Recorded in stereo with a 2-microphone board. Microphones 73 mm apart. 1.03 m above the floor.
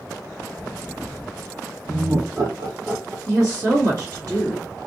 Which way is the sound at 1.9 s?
70° right (ahead or behind).